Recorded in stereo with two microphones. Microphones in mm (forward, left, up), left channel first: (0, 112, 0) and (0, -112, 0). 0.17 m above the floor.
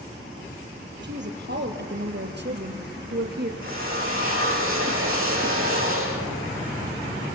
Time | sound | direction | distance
1.0 | a woman speaking | 55° right (ahead or behind) | 3.5 m
3.6 | a drill | 65° right (ahead or behind) | 9 m